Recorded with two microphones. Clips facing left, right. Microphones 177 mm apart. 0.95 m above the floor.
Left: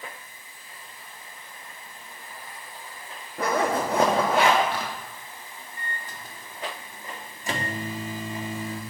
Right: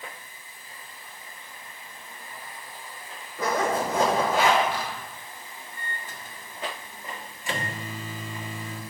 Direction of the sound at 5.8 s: 40° left (ahead or behind).